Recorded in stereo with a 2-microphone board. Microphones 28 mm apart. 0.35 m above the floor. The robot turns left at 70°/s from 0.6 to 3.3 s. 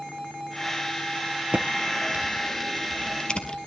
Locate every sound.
1.5 s typing on a keyboard: 85° right, 1.6 m; by 3.6 s 30° left (ahead or behind), 1.6 m